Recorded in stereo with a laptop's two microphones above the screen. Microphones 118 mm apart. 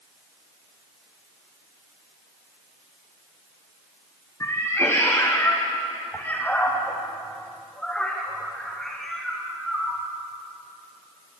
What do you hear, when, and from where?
4.4 s a cat meowing: 25° left (ahead or behind), 4 m; by 10.0 s centre (ahead or behind), 6 m